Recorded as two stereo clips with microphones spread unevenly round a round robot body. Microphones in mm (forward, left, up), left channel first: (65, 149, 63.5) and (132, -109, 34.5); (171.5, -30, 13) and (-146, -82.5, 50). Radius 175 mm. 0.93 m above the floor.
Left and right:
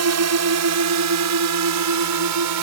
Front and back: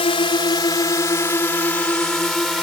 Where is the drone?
65° right; by 2.6 s 80° right.